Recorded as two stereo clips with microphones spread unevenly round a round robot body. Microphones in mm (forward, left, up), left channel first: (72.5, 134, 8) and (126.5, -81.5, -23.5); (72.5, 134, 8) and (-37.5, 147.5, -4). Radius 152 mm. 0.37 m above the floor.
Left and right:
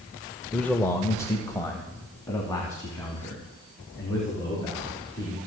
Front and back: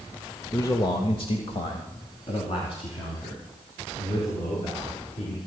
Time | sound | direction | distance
0.5 | a man speaking | straight ahead | 0.8 m